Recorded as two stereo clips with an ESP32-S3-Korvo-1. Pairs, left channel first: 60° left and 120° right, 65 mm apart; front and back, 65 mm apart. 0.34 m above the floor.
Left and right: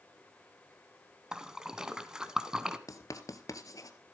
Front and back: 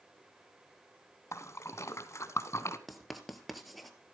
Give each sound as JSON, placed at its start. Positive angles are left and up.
{"t": 1.3, "sound": "a splash", "azimuth_deg": -40, "distance_m": 1.0}
{"t": 2.9, "sound": "writing", "azimuth_deg": 90, "distance_m": 1.4}